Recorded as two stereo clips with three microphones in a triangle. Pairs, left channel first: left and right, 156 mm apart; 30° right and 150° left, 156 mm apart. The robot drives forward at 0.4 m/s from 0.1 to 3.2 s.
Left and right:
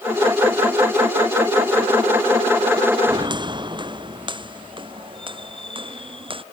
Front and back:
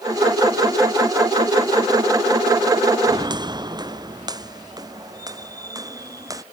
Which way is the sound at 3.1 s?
150° right.